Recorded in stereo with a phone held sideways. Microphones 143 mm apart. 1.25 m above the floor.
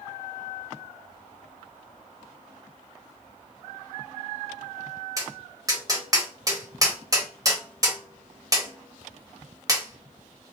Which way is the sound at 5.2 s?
25° right (ahead or behind).